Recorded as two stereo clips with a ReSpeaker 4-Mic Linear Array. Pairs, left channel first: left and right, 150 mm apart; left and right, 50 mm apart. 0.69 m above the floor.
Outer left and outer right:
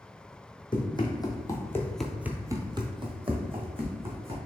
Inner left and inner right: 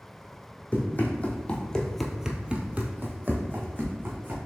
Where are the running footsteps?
30° left (ahead or behind), 1.5 m; by 4.4 s 40° right (ahead or behind), 2 m.